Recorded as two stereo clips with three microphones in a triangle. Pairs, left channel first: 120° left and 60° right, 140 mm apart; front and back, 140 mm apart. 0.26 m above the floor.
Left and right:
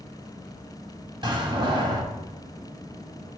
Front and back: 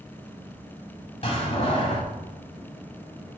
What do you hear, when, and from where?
1.2 s a door slam: 20° right, 1.5 m